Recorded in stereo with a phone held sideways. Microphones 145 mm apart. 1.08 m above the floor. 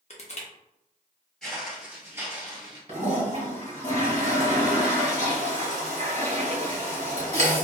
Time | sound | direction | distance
0.1 | crushing | 50° left (ahead or behind) | 0.6 m
1.4 | footsteps | 5° left (ahead or behind) | 1.1 m
2.9 | a toilet flushing | 55° right (ahead or behind) | 1.5 m